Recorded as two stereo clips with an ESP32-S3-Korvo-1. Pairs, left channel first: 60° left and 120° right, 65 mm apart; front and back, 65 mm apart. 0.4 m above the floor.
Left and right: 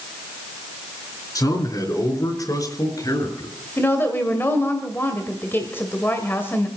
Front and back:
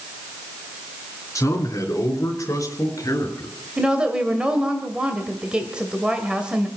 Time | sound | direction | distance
1.4 | a man speaking | 40° left | 4 m
3.8 | a woman speaking | 105° left | 2.0 m